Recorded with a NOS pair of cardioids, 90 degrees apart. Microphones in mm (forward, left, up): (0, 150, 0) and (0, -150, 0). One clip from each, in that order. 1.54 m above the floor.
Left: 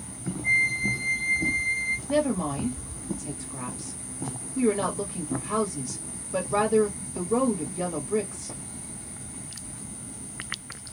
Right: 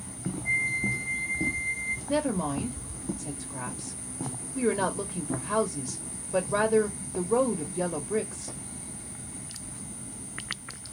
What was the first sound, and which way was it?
A flute, 50° left.